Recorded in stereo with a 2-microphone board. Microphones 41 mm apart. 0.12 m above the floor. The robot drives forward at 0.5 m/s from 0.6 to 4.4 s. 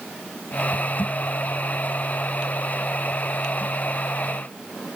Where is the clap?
No clap in this recording.